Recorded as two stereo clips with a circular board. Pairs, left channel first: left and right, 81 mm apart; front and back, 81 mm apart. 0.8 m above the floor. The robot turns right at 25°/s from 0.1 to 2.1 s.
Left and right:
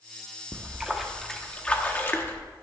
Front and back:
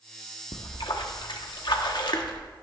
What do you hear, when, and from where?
0.5 s a splash: 15° right, 0.9 m; by 2.4 s 25° left, 0.9 m